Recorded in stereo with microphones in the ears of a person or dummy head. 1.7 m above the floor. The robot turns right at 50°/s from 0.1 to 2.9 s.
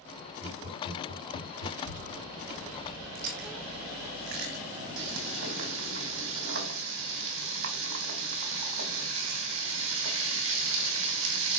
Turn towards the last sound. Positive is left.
turn(degrees=-70)  # may be behind; listen again after turning